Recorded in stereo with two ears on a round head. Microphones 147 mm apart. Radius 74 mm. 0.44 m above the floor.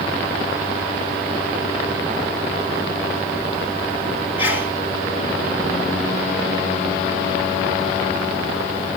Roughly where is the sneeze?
Centre.